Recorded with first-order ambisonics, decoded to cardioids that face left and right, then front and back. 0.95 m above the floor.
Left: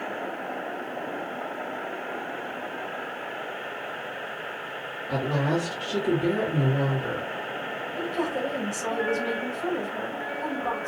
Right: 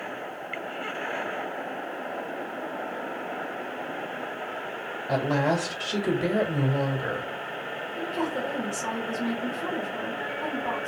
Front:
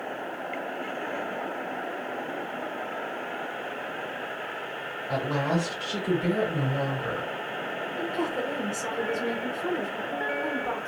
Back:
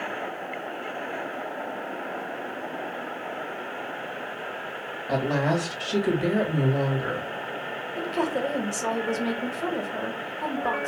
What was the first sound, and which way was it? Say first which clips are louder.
A woman speaking: right 2 dB, back 3 dB; 135° right.